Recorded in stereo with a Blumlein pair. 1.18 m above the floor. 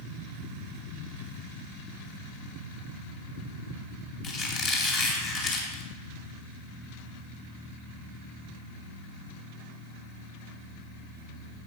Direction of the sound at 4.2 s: 30° left.